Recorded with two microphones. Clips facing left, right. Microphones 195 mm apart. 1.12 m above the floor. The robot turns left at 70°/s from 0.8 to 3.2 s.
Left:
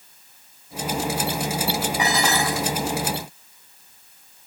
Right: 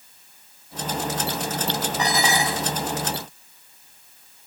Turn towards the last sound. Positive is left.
turn(degrees=-75)